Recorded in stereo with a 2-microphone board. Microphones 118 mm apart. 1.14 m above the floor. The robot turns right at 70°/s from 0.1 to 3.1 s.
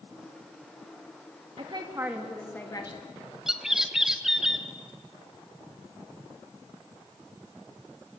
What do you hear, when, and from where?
1.6 s a woman speaking: 55° right, 1.8 m; by 3.0 s 50° left, 1.8 m
3.5 s a bird: 5° right (ahead or behind), 1.1 m